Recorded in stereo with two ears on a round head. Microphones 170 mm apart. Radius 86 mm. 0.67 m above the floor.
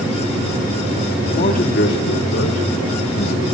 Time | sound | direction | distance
1.3 | a man speaking | 40° left (ahead or behind) | 1.7 m